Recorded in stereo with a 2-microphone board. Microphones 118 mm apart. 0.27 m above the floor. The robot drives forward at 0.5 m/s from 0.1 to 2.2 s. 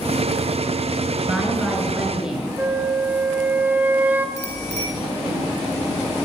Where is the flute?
15° right (ahead or behind), 1.4 m.